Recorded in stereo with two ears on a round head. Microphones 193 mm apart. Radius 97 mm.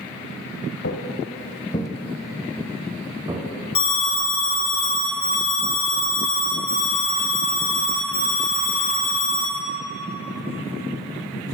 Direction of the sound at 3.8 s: 50° left (ahead or behind).